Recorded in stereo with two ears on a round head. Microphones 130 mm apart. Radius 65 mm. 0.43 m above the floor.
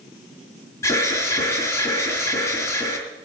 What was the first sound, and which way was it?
An alarm, 20° left (ahead or behind).